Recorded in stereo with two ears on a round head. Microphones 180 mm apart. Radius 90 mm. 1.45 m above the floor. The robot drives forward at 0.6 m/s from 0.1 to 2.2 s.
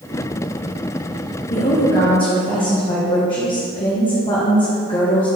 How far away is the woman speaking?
About 1.0 m.